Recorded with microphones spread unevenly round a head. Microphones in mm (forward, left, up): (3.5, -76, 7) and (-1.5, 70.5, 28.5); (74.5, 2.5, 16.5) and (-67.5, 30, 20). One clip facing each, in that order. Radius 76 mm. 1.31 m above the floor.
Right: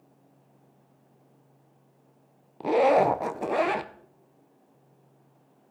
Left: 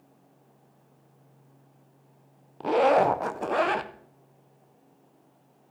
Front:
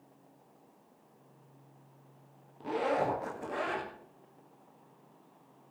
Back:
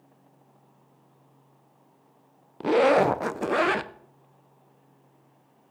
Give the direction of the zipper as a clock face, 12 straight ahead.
6 o'clock.